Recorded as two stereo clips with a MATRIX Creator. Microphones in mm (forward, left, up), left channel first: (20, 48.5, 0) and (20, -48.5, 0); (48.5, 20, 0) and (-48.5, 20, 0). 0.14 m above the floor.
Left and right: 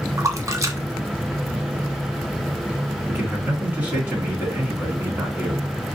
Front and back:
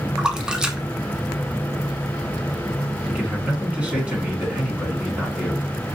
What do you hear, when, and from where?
0.2 s a splash: 105° right, 0.6 m
3.1 s a man speaking: 130° right, 1.6 m